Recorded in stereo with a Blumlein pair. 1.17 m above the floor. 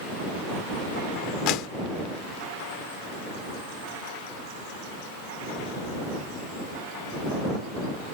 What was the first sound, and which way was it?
A clap, 40° left.